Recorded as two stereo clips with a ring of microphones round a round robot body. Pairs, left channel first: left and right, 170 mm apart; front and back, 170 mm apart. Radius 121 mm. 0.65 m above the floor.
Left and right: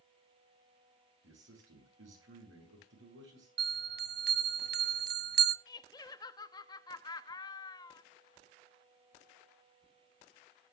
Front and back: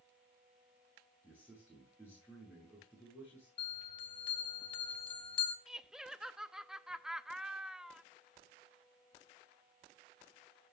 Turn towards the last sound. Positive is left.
turn(degrees=100)